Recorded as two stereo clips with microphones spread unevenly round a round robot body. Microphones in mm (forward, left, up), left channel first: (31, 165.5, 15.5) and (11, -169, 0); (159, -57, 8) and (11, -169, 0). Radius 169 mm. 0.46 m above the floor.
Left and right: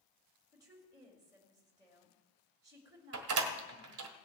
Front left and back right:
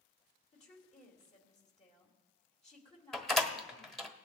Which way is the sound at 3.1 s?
50° right.